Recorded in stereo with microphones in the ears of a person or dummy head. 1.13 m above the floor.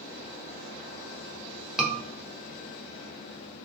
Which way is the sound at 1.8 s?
Centre (ahead or behind).